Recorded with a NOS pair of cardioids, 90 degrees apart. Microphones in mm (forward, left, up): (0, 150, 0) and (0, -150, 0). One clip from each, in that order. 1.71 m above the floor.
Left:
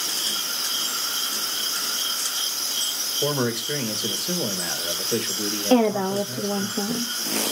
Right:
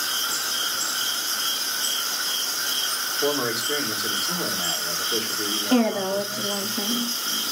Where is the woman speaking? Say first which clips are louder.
Left 4 dB; 55° left, 0.9 m.